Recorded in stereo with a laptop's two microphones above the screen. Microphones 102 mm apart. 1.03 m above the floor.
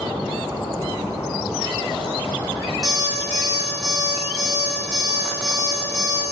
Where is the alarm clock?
40° right (ahead or behind), 1.4 m.